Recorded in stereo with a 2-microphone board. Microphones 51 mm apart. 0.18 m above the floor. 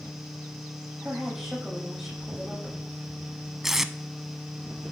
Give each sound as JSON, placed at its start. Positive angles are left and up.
{"t": 1.0, "sound": "a woman speaking", "side_deg": -10, "distance_m": 6.0}
{"t": 3.6, "sound": "tape being pulled", "side_deg": -10, "distance_m": 0.5}